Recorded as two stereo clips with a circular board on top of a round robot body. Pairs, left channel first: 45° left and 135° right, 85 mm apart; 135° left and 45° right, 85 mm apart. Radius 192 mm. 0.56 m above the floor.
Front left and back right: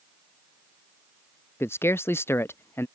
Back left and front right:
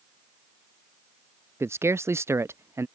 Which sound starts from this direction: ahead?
A man speaking, at 1.6 s.